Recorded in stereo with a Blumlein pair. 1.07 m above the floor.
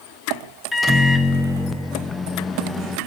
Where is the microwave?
10° left, 0.6 m.